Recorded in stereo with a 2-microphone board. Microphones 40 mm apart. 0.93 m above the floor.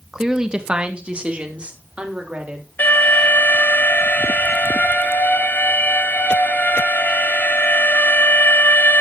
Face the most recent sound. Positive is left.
turn(degrees=50)  # may be behind; listen again after turning